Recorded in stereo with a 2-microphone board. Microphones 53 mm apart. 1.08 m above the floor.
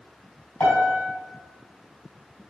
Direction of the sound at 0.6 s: 25° left (ahead or behind).